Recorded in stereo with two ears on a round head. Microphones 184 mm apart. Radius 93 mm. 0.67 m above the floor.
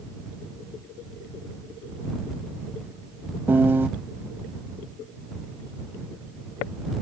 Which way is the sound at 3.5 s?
10° right (ahead or behind).